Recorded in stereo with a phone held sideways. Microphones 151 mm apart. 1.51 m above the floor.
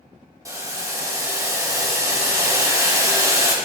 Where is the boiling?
20° right (ahead or behind), 1.5 m.